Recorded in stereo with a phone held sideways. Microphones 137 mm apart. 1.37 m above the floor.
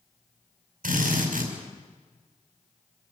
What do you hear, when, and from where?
0.8 s a drill: 85° right, 6 m